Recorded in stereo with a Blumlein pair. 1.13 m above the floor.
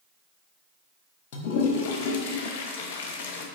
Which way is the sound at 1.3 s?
45° left.